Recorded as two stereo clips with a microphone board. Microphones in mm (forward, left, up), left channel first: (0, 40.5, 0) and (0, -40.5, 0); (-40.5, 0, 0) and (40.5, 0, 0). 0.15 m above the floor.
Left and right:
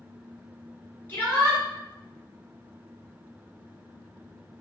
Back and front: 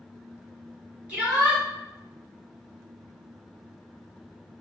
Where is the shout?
55° left, 1.7 m.